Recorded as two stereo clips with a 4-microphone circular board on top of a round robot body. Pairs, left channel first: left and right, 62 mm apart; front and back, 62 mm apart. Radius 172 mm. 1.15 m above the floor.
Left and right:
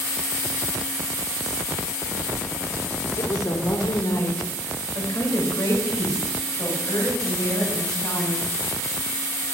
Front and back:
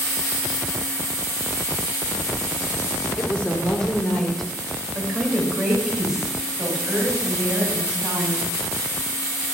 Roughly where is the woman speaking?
Ahead left.